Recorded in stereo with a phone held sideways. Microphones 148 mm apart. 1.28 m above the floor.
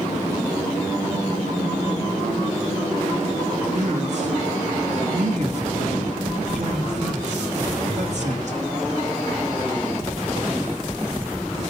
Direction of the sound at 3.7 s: 50° right (ahead or behind).